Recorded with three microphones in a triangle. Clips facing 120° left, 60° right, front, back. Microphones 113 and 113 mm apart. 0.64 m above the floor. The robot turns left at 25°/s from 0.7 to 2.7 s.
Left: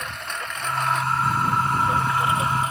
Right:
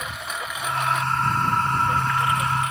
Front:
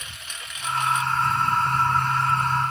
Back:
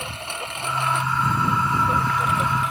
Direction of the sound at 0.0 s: 145° right.